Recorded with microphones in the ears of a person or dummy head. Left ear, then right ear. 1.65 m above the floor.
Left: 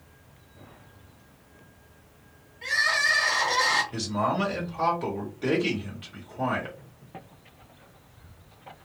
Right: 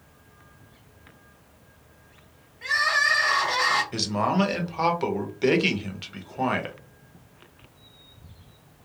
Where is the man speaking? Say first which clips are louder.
Right 2 dB; 45° right (ahead or behind), 0.9 m.